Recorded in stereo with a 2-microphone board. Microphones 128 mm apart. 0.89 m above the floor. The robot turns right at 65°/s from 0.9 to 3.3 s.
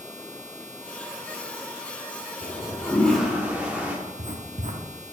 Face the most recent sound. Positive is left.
turn(degrees=-70)  # may be behind; listen again after turning